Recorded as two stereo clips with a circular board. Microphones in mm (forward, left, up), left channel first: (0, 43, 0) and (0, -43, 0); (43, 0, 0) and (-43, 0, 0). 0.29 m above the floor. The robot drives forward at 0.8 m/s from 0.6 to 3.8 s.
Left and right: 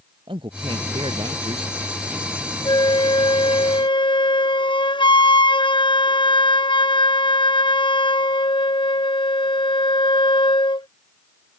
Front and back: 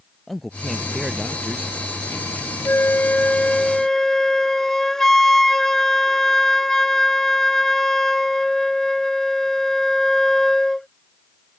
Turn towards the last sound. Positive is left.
turn(degrees=85)